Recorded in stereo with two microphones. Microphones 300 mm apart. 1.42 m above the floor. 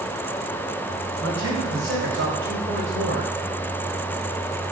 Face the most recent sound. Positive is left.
turn(degrees=-40)  # may be behind; listen again after turning